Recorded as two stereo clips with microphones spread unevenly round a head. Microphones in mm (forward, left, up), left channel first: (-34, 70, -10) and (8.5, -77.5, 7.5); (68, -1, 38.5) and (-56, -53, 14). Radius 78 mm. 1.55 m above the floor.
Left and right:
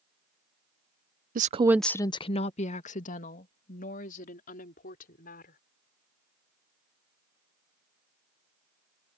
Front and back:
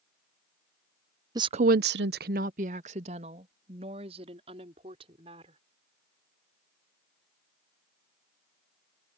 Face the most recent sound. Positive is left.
turn(degrees=140)